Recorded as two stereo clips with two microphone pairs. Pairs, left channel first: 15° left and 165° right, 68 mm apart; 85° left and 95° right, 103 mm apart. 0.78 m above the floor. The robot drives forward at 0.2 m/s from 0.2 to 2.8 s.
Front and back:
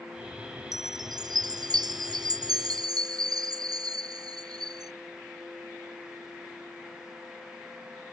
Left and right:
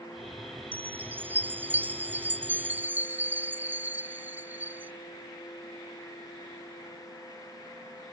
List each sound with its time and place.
0.7 s a chime: 165° right